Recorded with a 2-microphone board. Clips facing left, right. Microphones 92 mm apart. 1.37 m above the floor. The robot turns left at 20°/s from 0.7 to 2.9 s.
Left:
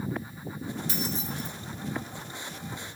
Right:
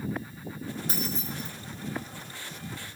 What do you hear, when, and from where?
0.9 s keys jangling: 55° right (ahead or behind), 2.5 m; by 1.5 s 65° right (ahead or behind), 2.5 m